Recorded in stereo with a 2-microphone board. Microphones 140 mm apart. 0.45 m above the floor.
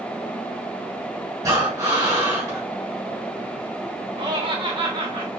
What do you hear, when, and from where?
1.4 s breathing: 25° right (ahead or behind), 2.0 m
4.2 s laughter: 40° right (ahead or behind), 2.0 m